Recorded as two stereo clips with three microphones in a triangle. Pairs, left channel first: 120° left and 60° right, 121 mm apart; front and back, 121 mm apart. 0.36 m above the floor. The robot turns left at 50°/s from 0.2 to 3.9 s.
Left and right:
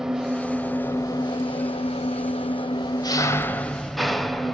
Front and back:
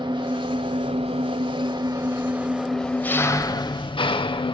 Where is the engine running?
145° right, 1.1 m; by 4.5 s 30° left, 1.1 m.